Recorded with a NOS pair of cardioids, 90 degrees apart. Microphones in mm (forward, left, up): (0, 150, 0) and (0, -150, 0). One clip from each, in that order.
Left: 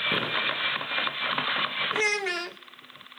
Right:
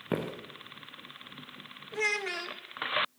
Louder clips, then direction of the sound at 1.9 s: Even; 25° left.